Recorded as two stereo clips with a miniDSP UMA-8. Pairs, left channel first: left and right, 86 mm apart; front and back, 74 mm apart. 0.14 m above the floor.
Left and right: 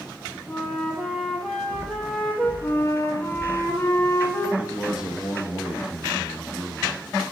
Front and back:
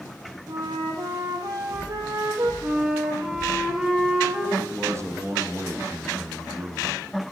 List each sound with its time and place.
0.5 s a flute: 175° left, 1.3 m
2.6 s a flute: 115° left, 1.8 m
4.6 s a man speaking: 165° right, 1.4 m